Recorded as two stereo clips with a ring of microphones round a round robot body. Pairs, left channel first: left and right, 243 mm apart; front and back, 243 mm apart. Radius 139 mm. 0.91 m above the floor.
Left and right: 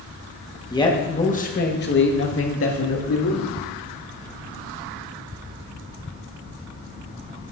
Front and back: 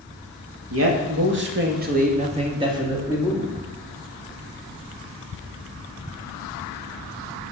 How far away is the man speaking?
About 1.6 m.